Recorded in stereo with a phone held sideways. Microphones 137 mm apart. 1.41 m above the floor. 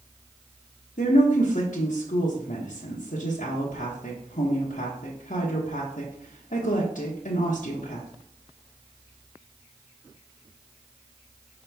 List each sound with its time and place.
1.0 s a woman speaking: 80° left, 0.9 m